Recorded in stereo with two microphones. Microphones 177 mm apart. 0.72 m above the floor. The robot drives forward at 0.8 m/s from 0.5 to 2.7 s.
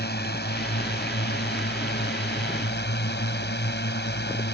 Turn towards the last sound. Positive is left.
turn(degrees=80)